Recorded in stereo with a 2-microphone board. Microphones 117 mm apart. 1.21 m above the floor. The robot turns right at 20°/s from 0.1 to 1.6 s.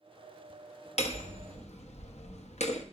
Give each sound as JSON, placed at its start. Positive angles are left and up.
{"t": 1.0, "sound": "hammering", "side_deg": 70, "distance_m": 0.9}